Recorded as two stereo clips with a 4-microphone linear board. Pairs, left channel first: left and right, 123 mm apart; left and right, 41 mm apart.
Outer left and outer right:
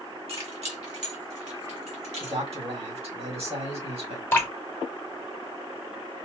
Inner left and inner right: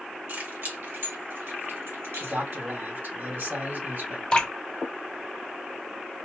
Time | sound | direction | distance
0.3 | keys jangling | 50° right (ahead or behind) | 1.5 m
2.2 | a man speaking | 55° right (ahead or behind) | 2 m
4.3 | dripping | 20° left (ahead or behind) | 1.6 m